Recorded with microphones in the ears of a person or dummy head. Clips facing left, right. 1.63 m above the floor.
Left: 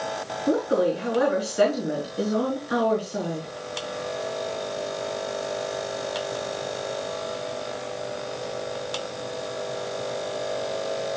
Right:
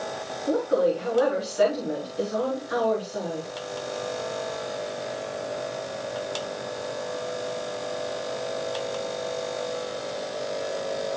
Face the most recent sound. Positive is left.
turn(degrees=40)  # may be behind; listen again after turning